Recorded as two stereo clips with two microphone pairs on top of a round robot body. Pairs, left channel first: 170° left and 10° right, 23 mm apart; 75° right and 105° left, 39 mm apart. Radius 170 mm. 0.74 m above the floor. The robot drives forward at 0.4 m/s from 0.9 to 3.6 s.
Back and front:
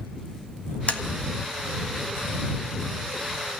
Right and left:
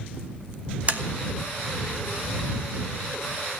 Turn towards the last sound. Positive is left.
turn(degrees=155)